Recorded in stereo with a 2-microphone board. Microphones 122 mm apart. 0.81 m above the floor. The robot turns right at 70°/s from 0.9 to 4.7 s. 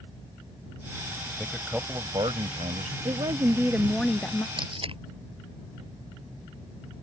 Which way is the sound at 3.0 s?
65° right.